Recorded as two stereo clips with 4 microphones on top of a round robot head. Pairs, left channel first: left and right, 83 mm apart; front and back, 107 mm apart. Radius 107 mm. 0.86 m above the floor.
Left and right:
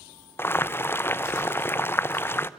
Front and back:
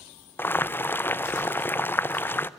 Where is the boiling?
55° left, 0.6 m.